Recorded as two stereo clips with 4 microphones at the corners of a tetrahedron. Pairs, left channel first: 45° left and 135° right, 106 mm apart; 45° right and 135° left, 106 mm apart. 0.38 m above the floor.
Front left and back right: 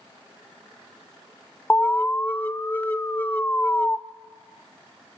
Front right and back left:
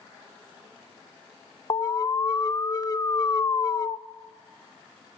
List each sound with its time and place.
1.7 s an alarm: 20° right, 0.7 m